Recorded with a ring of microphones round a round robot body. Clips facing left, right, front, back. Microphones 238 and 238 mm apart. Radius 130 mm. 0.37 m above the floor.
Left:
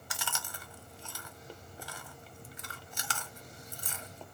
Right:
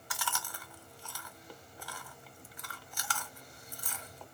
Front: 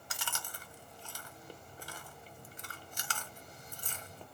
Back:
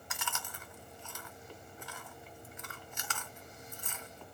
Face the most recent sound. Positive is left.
turn(degrees=35)